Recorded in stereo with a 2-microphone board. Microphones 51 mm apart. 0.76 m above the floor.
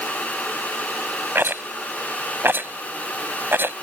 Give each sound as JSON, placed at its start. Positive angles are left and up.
{"t": 1.4, "sound": "a rattle", "side_deg": -50}